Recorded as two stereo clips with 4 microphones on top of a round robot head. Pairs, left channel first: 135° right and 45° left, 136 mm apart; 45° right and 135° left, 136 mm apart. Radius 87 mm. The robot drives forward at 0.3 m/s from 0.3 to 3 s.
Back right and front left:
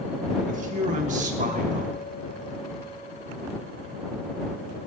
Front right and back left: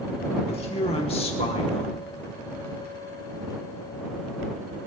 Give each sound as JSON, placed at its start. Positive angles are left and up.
{"t": 0.5, "sound": "a man speaking", "azimuth_deg": 5, "distance_m": 3.0}